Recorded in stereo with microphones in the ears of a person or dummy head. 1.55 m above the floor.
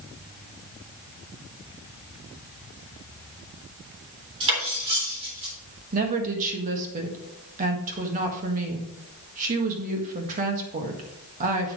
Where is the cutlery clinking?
25° right (ahead or behind), 3.5 m.